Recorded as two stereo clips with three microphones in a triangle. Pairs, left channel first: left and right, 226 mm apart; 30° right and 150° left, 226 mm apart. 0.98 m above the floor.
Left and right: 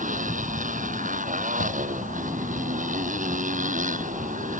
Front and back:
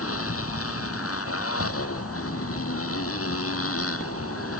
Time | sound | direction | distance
0.0 | a motorcycle | 35° right | ?
1.6 | knocking | 115° left | ?